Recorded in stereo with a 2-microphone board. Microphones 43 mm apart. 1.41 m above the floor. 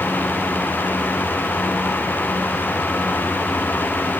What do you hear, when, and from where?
Only background noise.